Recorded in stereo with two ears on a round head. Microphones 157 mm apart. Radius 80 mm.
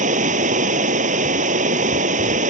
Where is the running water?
45° right (ahead or behind).